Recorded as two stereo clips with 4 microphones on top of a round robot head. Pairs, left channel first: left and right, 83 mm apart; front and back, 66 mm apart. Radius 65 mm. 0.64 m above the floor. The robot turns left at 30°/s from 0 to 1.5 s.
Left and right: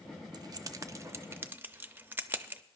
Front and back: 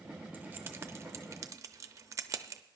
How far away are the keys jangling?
About 0.6 m.